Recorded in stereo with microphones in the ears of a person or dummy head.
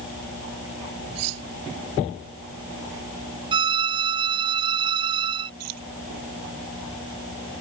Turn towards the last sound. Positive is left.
turn(degrees=-85)